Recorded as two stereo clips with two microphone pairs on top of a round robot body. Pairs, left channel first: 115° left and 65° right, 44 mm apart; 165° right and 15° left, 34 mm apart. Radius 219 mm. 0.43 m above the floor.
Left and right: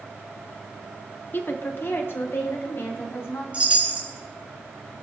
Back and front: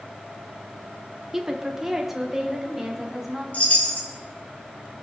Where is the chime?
125° right, 3.5 m.